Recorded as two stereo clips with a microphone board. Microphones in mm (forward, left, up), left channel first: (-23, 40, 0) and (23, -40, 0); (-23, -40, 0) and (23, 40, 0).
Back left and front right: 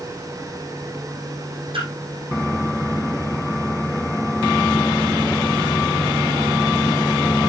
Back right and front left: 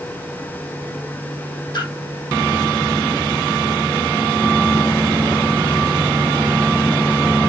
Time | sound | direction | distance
1.7 | a splash | 80° right | 3.5 m